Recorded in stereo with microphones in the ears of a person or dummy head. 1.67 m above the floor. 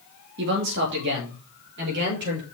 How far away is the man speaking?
About 2.5 m.